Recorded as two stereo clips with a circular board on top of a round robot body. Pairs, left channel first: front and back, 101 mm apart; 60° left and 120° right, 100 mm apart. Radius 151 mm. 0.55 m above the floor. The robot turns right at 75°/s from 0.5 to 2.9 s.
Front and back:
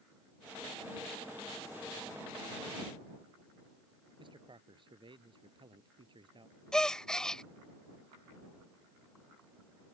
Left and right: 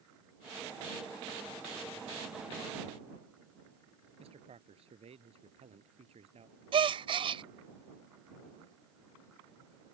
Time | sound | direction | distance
4.2 | a man speaking | 140° right | ?
6.7 | a gasp | 85° right | ?